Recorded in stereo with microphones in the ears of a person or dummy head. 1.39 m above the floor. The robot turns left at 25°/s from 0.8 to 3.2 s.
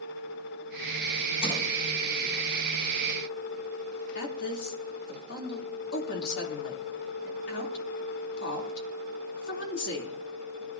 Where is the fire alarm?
I don't hear a fire alarm.